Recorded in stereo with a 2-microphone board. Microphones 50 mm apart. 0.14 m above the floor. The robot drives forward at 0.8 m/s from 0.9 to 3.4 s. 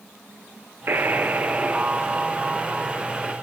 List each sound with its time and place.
0.9 s a buzzer: 50° right (ahead or behind), 0.8 m; by 3.3 s 15° right (ahead or behind), 2.5 m